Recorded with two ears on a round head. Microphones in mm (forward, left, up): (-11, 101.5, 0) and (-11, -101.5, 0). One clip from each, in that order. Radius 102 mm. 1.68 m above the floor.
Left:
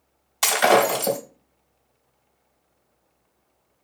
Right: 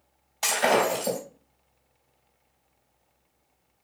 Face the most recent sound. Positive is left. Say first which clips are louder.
# left 5 dB
turn(degrees=55)  # may be behind; listen again after turning